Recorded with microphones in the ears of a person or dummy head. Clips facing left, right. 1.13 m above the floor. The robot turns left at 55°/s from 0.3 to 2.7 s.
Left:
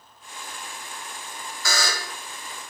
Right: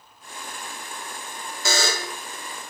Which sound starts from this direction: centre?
A buzzer, at 1.6 s.